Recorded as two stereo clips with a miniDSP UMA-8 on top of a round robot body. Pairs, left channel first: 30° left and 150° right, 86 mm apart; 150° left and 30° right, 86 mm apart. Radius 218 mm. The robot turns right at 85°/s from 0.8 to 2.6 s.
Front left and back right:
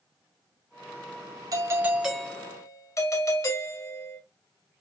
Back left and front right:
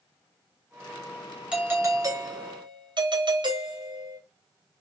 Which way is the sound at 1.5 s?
110° right.